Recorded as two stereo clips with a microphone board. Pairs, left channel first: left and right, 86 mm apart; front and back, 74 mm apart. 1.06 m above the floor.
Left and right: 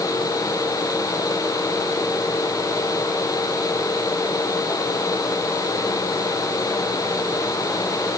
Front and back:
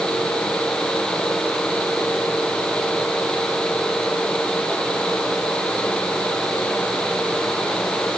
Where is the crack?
I don't hear a crack.